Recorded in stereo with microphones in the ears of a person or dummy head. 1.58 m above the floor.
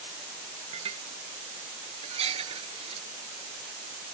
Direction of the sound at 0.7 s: 35° right (ahead or behind).